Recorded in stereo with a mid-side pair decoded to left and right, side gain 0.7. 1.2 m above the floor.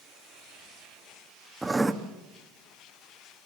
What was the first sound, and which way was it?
Writing, 10° right.